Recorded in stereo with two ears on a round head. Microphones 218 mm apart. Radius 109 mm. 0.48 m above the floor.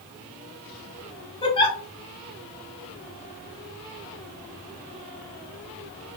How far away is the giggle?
About 1.2 m.